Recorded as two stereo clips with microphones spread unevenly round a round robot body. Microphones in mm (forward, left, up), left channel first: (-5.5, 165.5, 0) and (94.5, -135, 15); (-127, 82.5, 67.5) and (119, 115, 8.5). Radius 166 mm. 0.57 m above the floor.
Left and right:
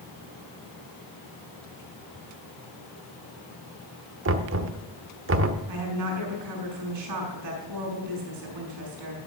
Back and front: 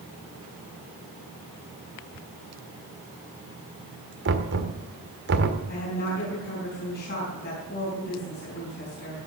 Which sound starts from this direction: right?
A woman speaking, at 5.7 s.